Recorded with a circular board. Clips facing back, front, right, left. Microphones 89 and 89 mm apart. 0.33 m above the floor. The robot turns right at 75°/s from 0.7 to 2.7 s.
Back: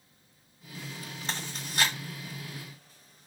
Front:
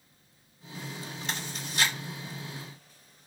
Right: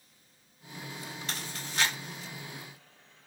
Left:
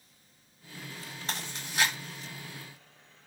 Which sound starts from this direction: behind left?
Chewing, at 1.3 s.